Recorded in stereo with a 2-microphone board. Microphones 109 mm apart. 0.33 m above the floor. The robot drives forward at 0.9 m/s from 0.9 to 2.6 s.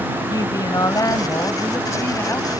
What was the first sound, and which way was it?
A woman speaking, 35° left (ahead or behind).